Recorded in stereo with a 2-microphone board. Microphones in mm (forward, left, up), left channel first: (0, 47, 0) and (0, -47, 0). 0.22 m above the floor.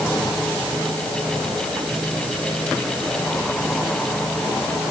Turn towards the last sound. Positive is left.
No sound to turn to.